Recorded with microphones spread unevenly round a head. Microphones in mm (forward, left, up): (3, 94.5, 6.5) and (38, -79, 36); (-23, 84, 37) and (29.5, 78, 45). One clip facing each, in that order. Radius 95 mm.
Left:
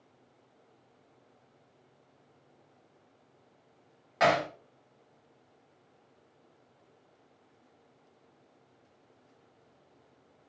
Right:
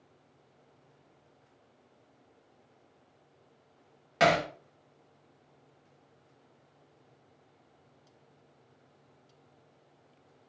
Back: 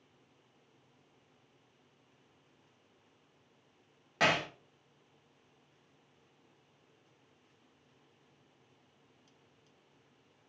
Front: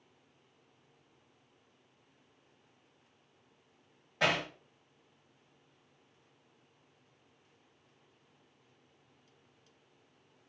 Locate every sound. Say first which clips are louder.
4.2 s hammering: right 1 dB, back 1 dB; 135° right, 2 m